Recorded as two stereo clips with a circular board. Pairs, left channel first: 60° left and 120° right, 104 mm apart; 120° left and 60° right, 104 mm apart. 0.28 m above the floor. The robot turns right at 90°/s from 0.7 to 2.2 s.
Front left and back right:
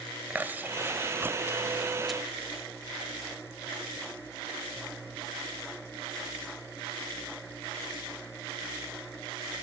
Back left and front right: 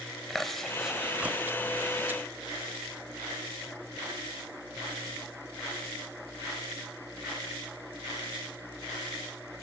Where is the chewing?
155° right, 0.7 m; by 2.2 s 20° right, 0.7 m.